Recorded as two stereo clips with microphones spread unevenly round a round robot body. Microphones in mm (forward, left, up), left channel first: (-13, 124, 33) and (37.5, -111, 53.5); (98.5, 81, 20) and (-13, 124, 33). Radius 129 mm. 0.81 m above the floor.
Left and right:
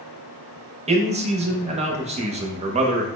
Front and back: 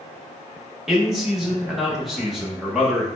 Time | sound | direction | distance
0.9 | a man speaking | 105° right | 0.8 m